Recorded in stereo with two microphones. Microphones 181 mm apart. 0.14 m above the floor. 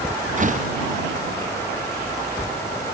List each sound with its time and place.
0.4 s a door slam: 45° right (ahead or behind)